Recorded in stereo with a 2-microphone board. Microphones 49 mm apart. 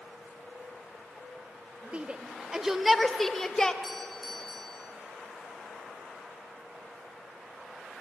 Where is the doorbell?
5° left (ahead or behind), 3 m.